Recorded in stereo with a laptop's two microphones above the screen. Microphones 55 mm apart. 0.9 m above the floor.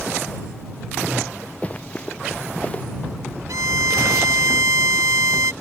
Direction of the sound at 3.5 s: 80° right.